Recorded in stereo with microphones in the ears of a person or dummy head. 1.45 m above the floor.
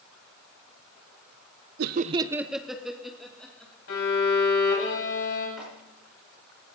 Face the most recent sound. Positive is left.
turn(degrees=0)  # may be behind; listen again after turning